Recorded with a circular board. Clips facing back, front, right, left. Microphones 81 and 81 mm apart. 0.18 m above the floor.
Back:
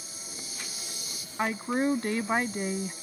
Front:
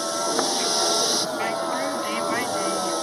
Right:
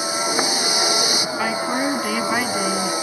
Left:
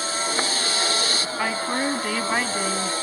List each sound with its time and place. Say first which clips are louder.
0.0 s a vehicle: front 23 dB, right 4 dB; 15° right
1.4 s a woman speaking: back 2 dB, right 2 dB; 175° right